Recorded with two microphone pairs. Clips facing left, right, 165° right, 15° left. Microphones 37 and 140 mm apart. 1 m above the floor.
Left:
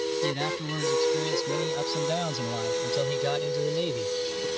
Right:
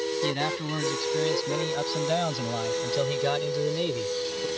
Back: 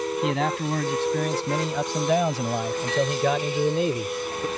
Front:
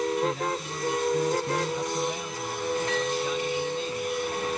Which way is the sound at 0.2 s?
160° right.